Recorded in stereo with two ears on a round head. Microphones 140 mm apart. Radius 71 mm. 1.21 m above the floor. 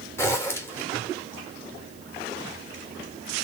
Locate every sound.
0.2 s a zipper: 15° left (ahead or behind), 1.1 m